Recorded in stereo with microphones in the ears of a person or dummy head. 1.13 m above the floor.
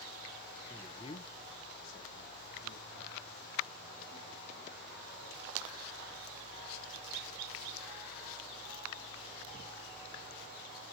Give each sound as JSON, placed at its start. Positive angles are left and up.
{"t": 0.7, "sound": "a man speaking", "side_deg": 5, "distance_m": 0.9}